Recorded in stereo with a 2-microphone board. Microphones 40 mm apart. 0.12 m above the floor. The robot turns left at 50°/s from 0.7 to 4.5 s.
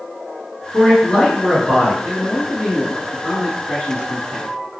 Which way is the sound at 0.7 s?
20° left (ahead or behind).